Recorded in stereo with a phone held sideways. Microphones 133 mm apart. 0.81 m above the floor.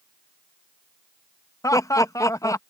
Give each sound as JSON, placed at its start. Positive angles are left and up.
{"t": 1.6, "sound": "laughter", "side_deg": 25}